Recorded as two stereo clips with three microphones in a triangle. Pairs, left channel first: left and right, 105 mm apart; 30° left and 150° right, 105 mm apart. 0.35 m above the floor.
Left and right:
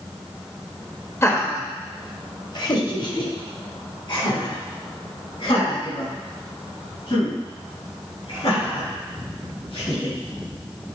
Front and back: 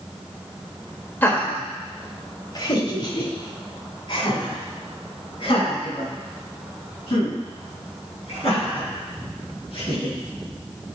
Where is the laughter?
75° left, 1.4 m; by 10.2 s 60° left, 6.5 m.